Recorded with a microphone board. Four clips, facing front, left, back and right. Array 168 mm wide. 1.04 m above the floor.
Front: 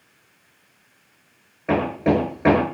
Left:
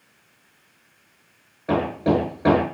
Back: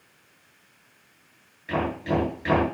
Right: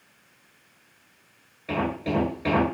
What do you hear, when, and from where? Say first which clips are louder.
1.7 s hammering: left 6 dB, front 6 dB; 30° left, 9.5 m